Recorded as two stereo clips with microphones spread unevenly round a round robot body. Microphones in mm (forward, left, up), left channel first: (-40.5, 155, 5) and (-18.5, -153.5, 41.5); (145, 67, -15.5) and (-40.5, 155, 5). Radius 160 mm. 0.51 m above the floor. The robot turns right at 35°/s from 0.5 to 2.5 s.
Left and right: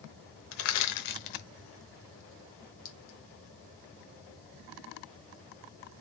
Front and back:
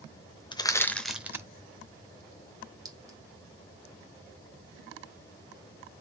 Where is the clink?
80° left, 1.3 m.